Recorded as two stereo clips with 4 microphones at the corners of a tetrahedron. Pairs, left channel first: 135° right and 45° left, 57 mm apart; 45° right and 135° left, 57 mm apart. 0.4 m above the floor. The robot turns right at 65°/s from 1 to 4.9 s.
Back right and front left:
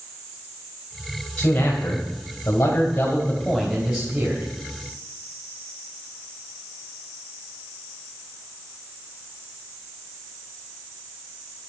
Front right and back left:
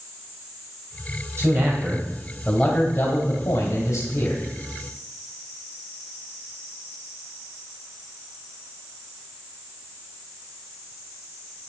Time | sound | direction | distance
1.4 | a man speaking | 175° left | 2.5 m